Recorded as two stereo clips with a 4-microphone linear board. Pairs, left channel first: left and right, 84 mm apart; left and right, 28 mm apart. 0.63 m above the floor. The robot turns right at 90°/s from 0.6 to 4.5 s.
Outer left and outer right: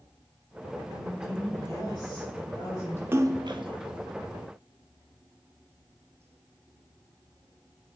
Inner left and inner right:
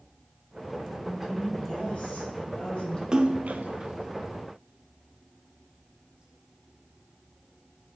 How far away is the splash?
About 0.5 m.